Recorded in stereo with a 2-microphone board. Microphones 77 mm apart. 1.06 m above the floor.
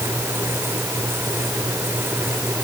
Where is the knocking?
No knocking in this recording.